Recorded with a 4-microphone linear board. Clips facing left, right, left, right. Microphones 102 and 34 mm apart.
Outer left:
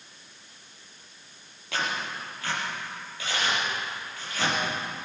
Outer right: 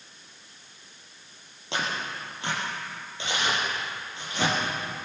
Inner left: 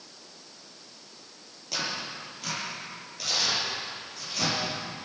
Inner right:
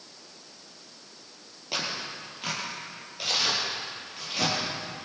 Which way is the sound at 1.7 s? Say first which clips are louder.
Even, even; 25° right (ahead or behind).